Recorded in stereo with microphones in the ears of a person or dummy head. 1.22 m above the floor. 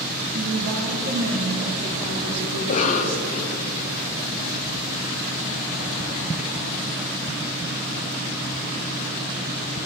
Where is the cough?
35° left (ahead or behind), 0.6 m.